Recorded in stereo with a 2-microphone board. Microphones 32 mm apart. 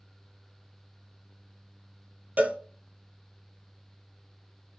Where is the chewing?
I don't hear chewing.